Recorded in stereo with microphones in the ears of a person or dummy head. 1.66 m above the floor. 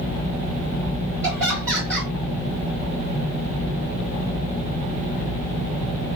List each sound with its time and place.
1.2 s laughter: 15° right (ahead or behind), 2.5 m